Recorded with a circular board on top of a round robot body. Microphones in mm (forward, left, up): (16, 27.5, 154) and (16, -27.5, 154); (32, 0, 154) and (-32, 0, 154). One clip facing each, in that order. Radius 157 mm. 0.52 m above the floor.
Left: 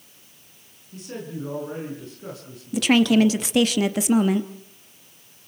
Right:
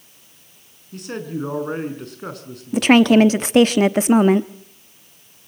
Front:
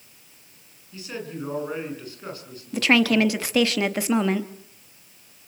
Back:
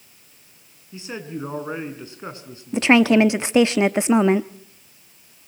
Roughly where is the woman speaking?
Behind right.